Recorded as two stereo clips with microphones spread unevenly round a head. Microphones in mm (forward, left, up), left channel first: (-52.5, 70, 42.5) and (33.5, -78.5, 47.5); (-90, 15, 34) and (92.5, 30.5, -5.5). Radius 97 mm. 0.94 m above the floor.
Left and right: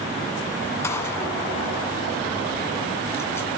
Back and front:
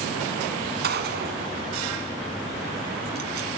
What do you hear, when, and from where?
0.8 s a gunshot: 45° left, 1.6 m